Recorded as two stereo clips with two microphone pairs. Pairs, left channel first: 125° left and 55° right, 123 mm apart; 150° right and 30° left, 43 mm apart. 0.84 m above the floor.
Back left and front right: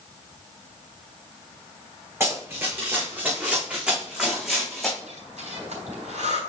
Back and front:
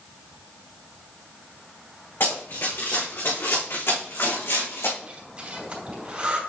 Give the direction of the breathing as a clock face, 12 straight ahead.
1 o'clock.